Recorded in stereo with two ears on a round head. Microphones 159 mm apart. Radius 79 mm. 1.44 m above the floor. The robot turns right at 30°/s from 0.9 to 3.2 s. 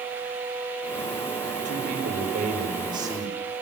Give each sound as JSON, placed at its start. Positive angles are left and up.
{"t": 1.6, "sound": "a man speaking", "azimuth_deg": -65, "distance_m": 6.0}